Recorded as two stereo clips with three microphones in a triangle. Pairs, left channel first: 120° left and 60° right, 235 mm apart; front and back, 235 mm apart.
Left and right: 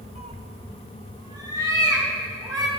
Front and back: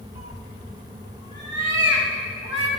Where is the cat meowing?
5° right, 0.6 m; by 2.7 s 15° left, 2.5 m.